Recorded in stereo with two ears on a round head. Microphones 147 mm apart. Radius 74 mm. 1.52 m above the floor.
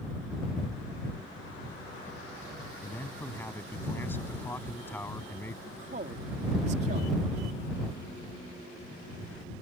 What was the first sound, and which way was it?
A man speaking, 15° left (ahead or behind).